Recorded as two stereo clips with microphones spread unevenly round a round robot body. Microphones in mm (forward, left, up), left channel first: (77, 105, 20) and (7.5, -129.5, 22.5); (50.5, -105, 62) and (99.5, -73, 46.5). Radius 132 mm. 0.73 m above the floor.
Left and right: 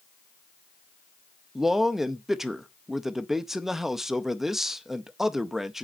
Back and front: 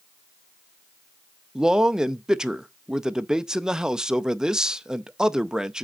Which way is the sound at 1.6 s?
20° right.